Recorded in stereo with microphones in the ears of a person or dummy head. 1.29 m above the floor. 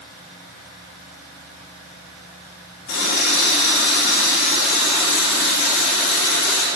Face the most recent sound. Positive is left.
turn(degrees=85)